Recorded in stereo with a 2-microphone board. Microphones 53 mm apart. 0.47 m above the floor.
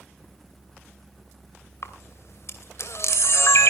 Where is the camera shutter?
60° left (ahead or behind), 2.5 m.